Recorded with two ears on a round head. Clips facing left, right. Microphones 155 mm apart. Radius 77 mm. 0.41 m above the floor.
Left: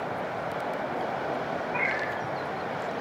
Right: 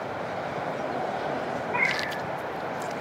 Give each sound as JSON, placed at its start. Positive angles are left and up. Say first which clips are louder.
{"t": 1.7, "sound": "a cat meowing", "louder": "even", "side_deg": -65, "distance_m": 2.0}